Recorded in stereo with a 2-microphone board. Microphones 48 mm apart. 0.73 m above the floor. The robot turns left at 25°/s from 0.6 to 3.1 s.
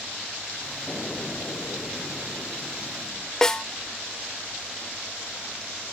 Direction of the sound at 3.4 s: 15° left (ahead or behind).